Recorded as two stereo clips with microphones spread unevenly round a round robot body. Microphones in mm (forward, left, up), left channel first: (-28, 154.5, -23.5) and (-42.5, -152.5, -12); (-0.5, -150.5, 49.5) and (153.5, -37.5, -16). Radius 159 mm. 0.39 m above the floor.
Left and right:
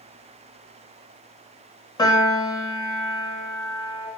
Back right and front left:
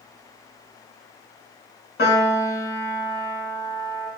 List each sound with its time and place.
2.0 s a piano: 160° left, 0.8 m